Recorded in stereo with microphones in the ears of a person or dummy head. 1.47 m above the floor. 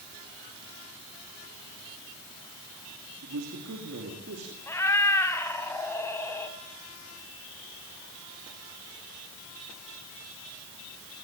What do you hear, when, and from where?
3.2 s a man speaking: 80° right, 3 m; by 4.6 s 60° right (ahead or behind), 3.5 m
4.7 s a cat meowing: 10° left (ahead or behind), 1.9 m